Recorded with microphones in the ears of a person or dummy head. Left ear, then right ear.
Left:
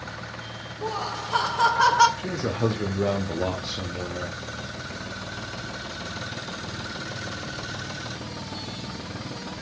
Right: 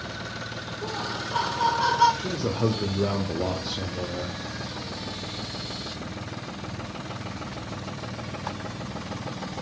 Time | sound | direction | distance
0.8 | laughter | 55° left (ahead or behind) | 1.2 m
2.2 | a man speaking | 10° left (ahead or behind) | 0.7 m